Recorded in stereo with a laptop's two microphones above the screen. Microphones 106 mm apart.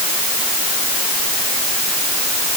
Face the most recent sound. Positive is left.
No sound to turn to.